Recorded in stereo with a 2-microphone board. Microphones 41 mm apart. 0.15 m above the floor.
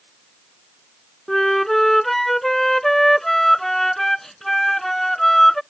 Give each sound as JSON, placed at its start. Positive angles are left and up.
{"t": 1.3, "sound": "a flute", "side_deg": 10}